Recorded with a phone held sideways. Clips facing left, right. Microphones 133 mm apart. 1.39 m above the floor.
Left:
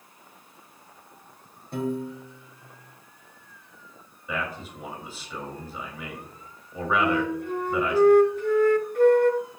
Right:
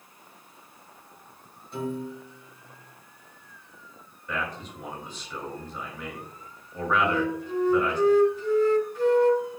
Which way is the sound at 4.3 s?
5° left (ahead or behind).